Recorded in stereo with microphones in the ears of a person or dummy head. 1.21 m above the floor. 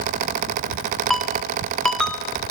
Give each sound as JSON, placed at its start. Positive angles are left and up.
{"t": 1.1, "sound": "a ringtone", "side_deg": 0, "distance_m": 1.3}